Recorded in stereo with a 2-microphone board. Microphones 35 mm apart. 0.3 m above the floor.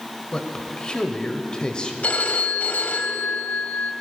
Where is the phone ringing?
50° left (ahead or behind), 0.9 m.